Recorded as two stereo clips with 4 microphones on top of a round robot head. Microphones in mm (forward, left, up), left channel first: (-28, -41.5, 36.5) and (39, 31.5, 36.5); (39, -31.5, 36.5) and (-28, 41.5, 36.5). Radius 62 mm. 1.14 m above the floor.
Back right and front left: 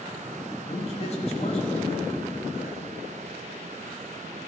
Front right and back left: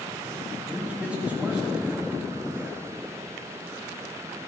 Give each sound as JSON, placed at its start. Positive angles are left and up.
{"t": 0.7, "sound": "a man speaking", "azimuth_deg": -150, "distance_m": 2.0}